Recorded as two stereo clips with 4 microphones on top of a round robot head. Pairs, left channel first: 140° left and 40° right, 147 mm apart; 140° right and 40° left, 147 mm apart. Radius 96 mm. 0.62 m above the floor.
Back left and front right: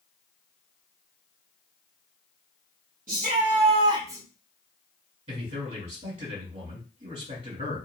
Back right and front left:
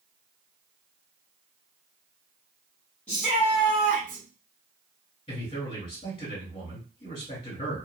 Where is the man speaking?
80° right, 2.5 m.